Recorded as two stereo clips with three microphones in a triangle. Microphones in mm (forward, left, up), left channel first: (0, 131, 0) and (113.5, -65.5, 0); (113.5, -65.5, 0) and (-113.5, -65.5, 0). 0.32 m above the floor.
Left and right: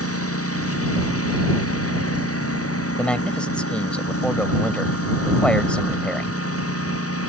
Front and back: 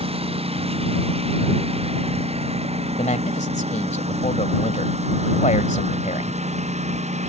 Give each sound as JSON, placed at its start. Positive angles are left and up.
{"t": 0.0, "sound": "a lawn mower", "azimuth_deg": 115}
{"t": 3.0, "sound": "a man speaking", "azimuth_deg": 35}